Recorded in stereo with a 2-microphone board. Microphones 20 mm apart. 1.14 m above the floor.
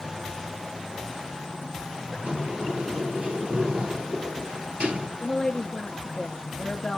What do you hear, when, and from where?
2.2 s a sliding door: 60° right (ahead or behind), 3 m
5.2 s a woman speaking: 50° left (ahead or behind), 0.9 m